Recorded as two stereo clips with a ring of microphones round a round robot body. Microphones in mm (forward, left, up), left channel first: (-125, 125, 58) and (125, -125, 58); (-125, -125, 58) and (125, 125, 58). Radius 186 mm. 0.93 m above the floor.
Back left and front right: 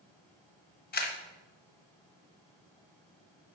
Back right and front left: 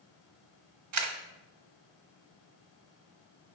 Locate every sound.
0.9 s a camera shutter: 75° left, 1.0 m